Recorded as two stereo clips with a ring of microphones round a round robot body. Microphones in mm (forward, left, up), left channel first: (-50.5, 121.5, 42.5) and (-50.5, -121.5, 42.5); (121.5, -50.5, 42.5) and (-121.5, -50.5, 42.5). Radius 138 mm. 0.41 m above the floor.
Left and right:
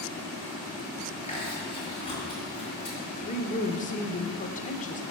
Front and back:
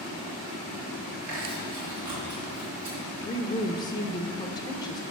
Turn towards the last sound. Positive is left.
turn(degrees=60)